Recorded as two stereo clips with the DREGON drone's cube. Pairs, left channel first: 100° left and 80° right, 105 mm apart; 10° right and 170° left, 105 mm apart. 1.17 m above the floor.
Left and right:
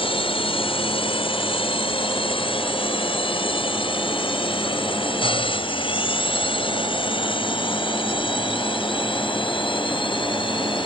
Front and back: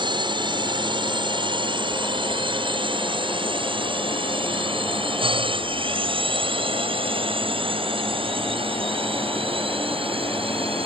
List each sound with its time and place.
0.0 s a drone: 130° left; by 10.9 s 140° left